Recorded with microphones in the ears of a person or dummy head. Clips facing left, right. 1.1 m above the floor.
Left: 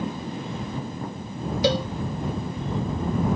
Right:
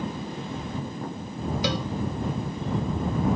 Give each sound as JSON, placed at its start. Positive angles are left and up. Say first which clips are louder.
{"t": 1.6, "sound": "a cowbell", "louder": "left 8 dB", "side_deg": 35}